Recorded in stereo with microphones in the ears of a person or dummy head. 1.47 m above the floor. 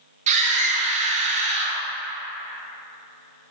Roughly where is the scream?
Right.